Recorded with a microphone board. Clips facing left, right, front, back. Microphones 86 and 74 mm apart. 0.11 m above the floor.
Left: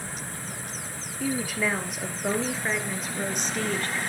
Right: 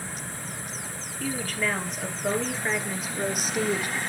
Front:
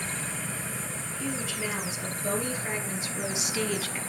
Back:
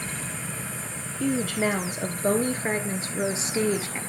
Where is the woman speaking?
165° left, 2 m; by 4.0 s 150° right, 1.3 m.